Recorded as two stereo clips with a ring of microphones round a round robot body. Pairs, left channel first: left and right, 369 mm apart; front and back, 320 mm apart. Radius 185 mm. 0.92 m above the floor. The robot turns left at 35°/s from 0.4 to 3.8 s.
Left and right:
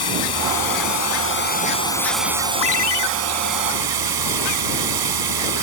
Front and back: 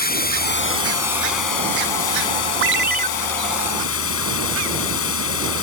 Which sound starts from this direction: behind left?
A ringtone, at 2.6 s.